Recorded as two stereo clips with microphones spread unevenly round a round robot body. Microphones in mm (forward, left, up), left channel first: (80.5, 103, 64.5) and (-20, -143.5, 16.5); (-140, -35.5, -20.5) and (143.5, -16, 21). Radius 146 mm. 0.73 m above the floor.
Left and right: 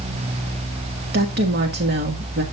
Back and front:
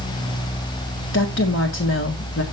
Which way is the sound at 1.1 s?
145° right.